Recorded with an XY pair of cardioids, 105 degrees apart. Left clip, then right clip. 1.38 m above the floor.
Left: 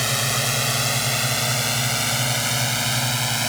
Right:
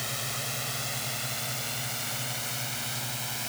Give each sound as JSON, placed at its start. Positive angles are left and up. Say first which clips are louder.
{"t": 0.0, "sound": "a drone", "louder": "left 11 dB", "azimuth_deg": 70}